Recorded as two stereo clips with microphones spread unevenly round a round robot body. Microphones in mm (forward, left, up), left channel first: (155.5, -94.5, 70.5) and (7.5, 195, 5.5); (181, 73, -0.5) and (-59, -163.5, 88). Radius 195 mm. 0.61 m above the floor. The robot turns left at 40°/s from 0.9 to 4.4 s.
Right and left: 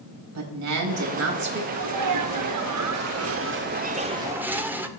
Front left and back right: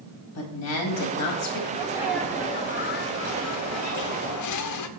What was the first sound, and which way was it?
A woman speaking, 85° left.